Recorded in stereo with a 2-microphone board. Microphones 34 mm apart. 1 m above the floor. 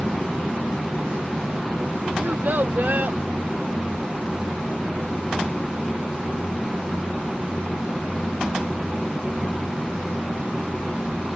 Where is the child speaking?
75° right (ahead or behind); by 3.2 s 55° right (ahead or behind).